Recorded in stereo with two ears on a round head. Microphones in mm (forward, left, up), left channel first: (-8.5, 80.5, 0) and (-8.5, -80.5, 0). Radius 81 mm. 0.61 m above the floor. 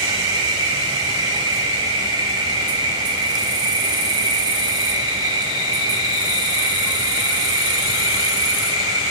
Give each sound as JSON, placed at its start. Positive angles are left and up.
{"t": 0.0, "sound": "an insect", "side_deg": -25, "distance_m": 0.9}